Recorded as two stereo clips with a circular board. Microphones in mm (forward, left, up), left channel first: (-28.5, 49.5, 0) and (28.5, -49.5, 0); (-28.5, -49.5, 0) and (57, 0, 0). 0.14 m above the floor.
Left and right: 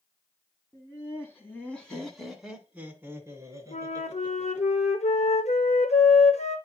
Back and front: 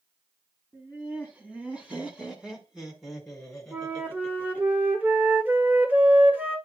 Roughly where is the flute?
Left.